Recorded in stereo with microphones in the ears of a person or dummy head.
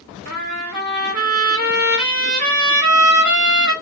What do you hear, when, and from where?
0.2 s a trumpet: 50° right (ahead or behind), 4 m